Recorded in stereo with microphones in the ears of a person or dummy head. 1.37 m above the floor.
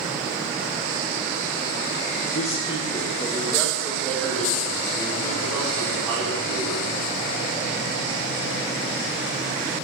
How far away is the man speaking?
About 0.6 m.